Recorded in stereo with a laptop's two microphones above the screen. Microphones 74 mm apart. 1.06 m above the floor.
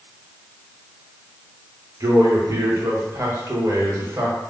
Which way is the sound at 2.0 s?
45° right (ahead or behind).